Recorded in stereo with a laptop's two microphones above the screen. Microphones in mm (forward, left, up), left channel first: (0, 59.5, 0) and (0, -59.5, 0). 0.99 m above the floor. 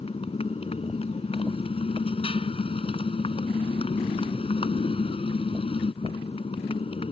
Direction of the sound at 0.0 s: 60° left (ahead or behind).